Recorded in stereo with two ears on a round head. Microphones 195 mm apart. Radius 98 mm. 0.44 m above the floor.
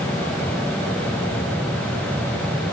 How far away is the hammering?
I don't hear hammering.